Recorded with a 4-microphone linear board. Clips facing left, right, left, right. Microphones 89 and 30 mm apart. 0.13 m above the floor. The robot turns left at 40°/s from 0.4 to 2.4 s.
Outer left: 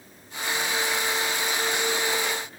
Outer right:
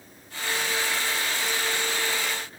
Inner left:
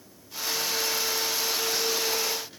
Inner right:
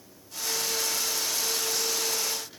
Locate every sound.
Only background noise.